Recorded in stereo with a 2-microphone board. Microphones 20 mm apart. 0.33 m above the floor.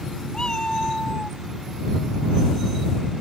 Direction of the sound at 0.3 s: 45° left (ahead or behind).